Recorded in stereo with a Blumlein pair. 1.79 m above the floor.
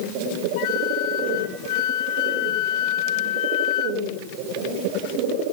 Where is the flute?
45° left, 0.6 m.